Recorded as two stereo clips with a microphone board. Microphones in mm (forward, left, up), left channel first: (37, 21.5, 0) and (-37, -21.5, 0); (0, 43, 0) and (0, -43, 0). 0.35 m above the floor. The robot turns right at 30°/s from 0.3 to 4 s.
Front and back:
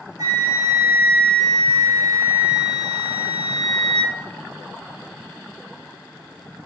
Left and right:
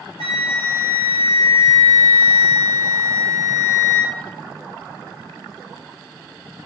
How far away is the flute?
About 0.7 m.